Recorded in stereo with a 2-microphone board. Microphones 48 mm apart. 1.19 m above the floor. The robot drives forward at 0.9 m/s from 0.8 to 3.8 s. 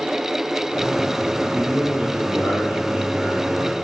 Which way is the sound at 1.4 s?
45° right (ahead or behind).